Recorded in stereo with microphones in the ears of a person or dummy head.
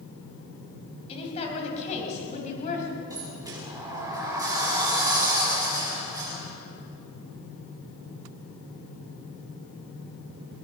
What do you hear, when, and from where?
1.1 s a woman speaking: 30° left (ahead or behind), 6 m; by 3.0 s 35° left (ahead or behind), 6.5 m
3.1 s a sliding door: 10° right (ahead or behind), 6.5 m